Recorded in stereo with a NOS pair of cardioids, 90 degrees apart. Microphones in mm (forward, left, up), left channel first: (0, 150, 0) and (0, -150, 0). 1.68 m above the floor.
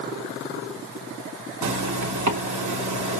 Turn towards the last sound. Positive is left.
turn(degrees=-65)